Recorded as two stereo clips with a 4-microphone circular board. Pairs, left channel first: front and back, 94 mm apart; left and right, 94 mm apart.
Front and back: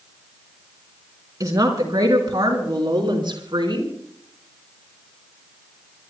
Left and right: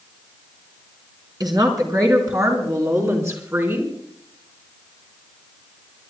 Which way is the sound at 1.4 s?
130° right.